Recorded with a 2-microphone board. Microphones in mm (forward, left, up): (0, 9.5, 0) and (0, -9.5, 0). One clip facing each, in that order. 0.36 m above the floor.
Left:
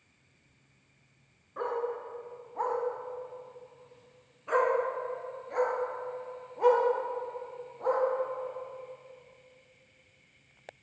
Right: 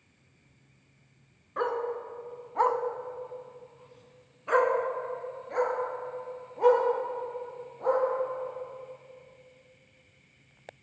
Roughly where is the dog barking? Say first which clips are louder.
Right 3 dB; right.